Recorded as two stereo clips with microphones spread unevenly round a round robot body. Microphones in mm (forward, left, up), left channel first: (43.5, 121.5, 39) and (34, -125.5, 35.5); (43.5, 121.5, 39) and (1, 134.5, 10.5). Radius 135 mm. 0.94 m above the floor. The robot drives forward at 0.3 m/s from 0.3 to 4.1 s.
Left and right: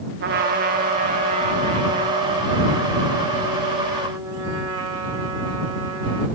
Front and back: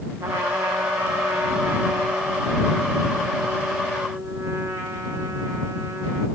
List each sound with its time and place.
0.2 s a trumpet: 150° right, 0.6 m; by 6.3 s 170° right, 1.7 m